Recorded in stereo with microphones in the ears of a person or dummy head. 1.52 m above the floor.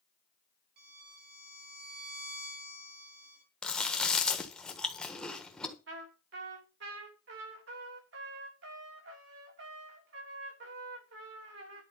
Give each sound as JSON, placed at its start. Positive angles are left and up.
{"t": 0.8, "sound": "a violin", "side_deg": -60, "distance_m": 2.5}
{"t": 3.6, "sound": "chewing", "side_deg": 0, "distance_m": 1.4}
{"t": 5.9, "sound": "a trumpet", "side_deg": -70, "distance_m": 3.0}